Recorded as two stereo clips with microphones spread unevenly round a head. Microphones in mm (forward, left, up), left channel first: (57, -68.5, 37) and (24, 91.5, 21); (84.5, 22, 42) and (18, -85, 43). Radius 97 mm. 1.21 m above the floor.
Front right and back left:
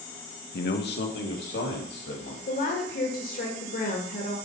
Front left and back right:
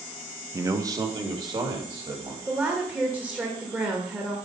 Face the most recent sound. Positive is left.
turn(degrees=-45)